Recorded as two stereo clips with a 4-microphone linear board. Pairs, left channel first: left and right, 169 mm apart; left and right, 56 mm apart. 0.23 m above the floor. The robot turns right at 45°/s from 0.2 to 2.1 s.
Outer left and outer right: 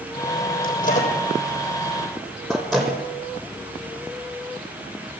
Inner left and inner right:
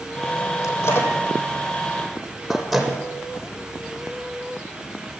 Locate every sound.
0.6 s a microwave: 65° left (ahead or behind), 7 m; by 3.0 s centre (ahead or behind), 7 m